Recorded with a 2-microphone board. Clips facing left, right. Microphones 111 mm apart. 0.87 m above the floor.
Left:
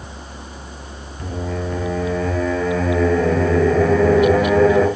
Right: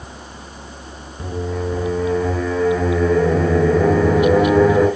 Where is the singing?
15° right (ahead or behind), 2.5 m.